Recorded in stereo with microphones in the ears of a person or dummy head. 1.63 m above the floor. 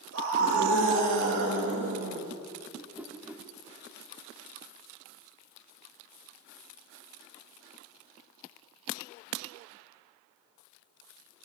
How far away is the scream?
About 3.5 m.